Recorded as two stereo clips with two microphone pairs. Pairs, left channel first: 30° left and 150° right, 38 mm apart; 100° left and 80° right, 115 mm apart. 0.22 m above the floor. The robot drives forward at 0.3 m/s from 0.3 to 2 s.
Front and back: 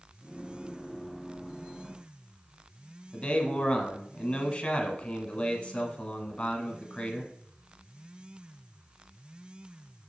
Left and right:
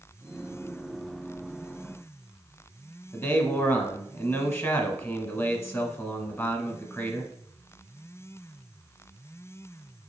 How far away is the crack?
I don't hear a crack.